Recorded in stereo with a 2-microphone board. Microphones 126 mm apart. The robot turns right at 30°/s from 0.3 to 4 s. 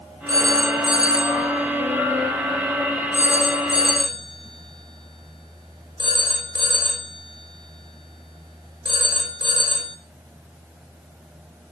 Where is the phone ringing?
30° right (ahead or behind), 4.5 m; by 10.0 s 40° right (ahead or behind), 4.5 m.